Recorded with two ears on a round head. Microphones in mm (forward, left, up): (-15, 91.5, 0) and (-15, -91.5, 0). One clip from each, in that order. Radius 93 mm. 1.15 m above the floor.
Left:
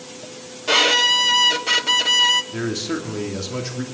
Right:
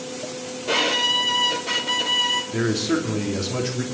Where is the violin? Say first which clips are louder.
Left 5 dB; 45° left (ahead or behind), 0.8 m.